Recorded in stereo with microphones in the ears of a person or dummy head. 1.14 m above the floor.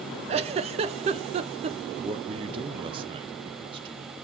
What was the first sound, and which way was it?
A giggle, 30° right (ahead or behind).